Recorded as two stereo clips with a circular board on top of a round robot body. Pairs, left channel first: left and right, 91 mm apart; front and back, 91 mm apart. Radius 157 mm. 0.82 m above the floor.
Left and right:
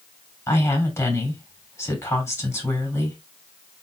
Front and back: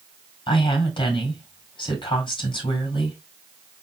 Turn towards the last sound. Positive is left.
turn(degrees=30)